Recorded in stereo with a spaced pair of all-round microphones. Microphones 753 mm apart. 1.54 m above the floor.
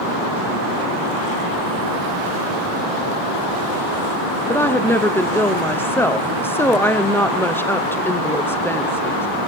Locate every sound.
4.5 s a woman speaking: 5° left (ahead or behind), 0.6 m